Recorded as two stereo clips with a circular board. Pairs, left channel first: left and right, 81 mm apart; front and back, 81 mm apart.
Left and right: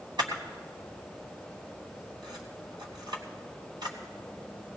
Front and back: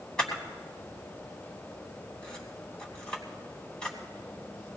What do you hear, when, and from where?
0.2 s a camera shutter: 80° right, 2.5 m